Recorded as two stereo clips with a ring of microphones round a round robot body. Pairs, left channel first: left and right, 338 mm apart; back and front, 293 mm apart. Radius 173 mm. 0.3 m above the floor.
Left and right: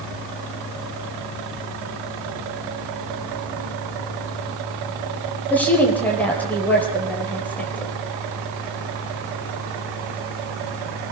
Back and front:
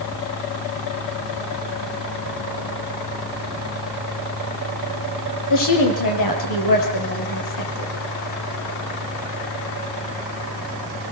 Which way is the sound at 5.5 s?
175° left.